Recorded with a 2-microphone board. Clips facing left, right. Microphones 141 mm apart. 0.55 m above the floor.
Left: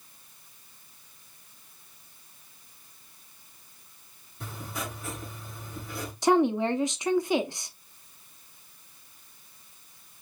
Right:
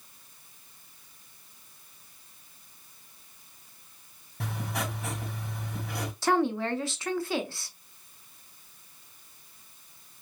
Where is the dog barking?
I don't hear a dog barking.